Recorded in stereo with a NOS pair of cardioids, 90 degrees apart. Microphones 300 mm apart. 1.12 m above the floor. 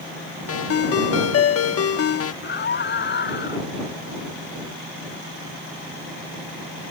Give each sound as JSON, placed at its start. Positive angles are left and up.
{"t": 0.5, "sound": "a ringtone", "azimuth_deg": 50}
{"t": 2.4, "sound": "a scream", "azimuth_deg": 35}